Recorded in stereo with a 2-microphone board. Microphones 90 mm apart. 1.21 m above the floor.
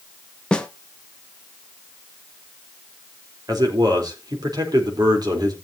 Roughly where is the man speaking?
Right.